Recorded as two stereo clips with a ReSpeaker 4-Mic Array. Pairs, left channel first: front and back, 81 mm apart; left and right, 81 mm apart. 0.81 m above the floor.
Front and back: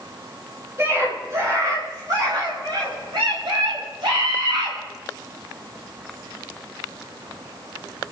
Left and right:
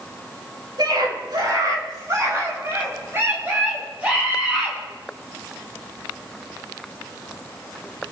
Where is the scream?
120° right, 5 m; by 4.8 s 170° right, 7 m.